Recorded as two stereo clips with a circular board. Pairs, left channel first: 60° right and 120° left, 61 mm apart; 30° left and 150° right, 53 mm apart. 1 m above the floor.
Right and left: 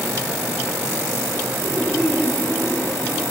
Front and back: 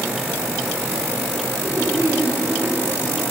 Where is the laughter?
120° right, 8.5 m.